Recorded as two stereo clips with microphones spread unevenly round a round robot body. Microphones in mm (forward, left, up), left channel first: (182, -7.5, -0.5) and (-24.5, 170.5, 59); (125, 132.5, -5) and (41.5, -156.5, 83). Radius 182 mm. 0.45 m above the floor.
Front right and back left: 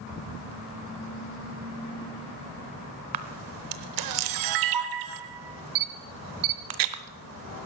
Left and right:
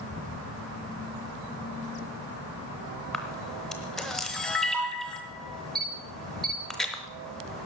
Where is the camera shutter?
160° left, 0.8 m.